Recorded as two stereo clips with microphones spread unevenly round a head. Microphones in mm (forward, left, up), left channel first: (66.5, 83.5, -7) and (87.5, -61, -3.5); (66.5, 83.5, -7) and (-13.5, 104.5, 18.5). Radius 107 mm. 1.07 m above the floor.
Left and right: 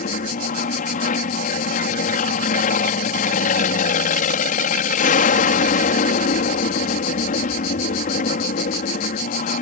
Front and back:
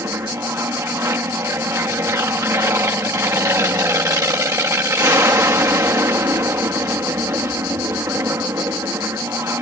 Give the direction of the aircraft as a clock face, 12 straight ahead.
8 o'clock.